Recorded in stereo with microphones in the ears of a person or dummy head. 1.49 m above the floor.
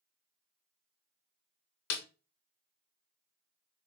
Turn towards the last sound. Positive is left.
turn(degrees=85)